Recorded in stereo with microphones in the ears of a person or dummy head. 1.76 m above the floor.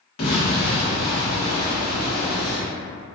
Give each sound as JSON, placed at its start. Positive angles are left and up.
{"t": 0.2, "sound": "an explosion", "side_deg": 40, "distance_m": 1.1}